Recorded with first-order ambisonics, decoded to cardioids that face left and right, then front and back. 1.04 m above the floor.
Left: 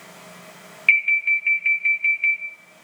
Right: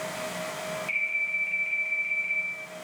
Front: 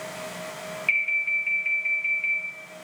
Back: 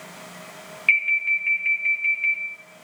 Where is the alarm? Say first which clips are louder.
Left 11 dB, back 4 dB; 105° left, 1.6 m.